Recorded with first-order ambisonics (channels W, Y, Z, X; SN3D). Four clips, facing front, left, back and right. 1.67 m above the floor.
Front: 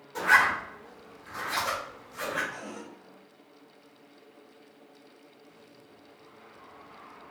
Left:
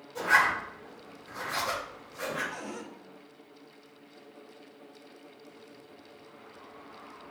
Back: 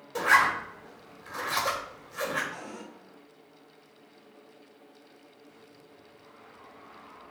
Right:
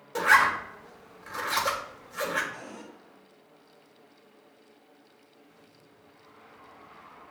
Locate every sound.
0.1 s a zipper: 105° right, 1.9 m
2.5 s a cupboard door: 75° left, 1.7 m